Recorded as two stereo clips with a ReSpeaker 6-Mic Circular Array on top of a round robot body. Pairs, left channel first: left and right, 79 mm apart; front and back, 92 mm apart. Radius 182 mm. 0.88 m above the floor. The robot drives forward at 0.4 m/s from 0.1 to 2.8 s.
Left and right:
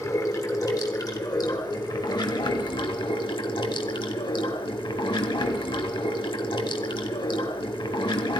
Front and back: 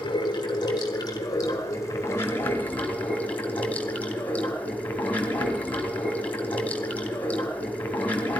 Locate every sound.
0.0 s running water: 40° left, 1.9 m; by 8.4 s 75° left, 1.3 m